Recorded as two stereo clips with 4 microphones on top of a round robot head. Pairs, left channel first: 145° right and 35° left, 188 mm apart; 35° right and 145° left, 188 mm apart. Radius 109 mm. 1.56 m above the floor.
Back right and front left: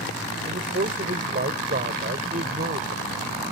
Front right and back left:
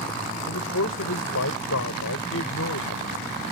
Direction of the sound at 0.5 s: 15° right.